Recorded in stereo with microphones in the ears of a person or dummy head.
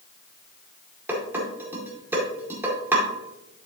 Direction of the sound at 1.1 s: 10° right (ahead or behind).